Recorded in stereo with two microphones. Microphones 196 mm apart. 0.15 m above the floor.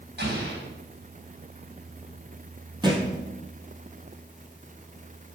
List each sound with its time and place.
0.2 s an explosion: 60° right (ahead or behind), 3.5 m
2.8 s a thud: 20° right (ahead or behind), 2.0 m